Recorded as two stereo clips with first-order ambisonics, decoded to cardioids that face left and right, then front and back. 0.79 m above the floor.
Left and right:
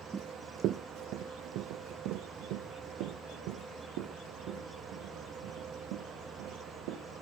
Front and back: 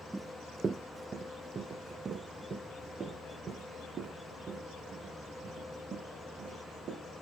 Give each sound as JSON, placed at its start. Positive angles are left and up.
{"t": 0.1, "sound": "running footsteps", "azimuth_deg": -110, "distance_m": 0.7}